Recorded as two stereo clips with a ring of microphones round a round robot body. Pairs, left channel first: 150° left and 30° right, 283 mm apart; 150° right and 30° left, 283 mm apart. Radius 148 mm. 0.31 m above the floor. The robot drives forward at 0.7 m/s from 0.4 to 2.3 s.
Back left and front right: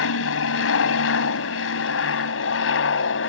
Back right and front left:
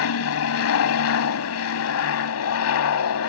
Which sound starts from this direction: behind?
An aircraft, at 0.0 s.